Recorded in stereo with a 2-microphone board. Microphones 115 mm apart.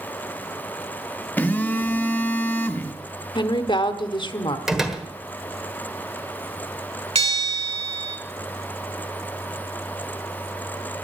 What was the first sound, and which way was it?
A phone buzzing, 15° left (ahead or behind).